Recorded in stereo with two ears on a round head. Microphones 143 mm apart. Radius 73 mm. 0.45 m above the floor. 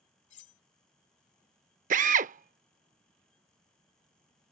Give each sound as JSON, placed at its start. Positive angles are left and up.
{"t": 0.3, "sound": "cutlery clinking", "side_deg": 45}
{"t": 1.9, "sound": "a drill", "side_deg": -50}